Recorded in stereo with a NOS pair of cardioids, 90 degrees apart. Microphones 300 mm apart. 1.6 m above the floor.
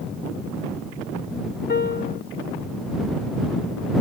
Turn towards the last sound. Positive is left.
turn(degrees=35)